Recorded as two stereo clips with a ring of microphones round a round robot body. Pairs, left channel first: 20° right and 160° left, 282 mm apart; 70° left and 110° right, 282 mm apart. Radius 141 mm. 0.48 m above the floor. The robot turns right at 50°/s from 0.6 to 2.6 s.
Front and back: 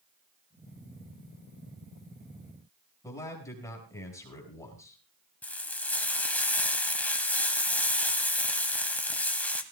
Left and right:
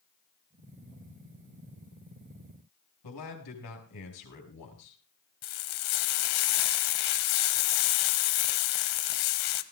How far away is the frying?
About 1.0 m.